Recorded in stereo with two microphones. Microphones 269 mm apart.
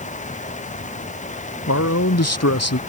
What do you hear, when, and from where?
1.7 s a man speaking: 70° left (ahead or behind)